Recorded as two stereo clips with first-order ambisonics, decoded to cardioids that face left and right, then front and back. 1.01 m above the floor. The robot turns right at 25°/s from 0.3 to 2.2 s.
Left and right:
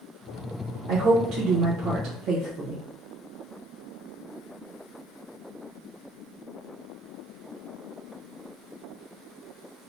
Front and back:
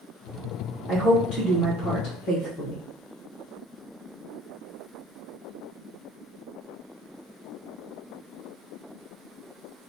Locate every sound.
0.9 s a woman speaking: 90° right, 0.8 m; by 2.8 s 55° right, 0.8 m